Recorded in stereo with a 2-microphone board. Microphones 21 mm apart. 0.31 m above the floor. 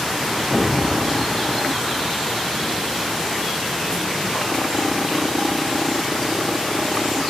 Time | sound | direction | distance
0.5 | an explosion | 15° right (ahead or behind) | 5 m